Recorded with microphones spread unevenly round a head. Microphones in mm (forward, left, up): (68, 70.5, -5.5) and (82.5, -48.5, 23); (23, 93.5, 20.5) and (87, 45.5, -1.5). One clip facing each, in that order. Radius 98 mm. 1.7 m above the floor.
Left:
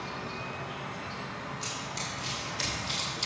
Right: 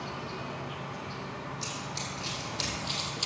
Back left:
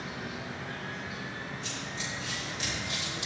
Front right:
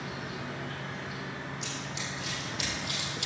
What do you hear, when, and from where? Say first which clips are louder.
0.0 s an insect: even, front right 1 dB; 60° right, 1.4 m
1.6 s running footsteps: even, even; 50° right, 3.5 m